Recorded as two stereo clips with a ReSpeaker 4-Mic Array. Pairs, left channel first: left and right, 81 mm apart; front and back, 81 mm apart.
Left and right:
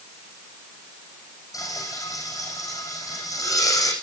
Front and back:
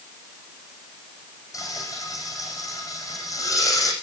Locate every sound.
1.5 s frying: 45° left, 7.5 m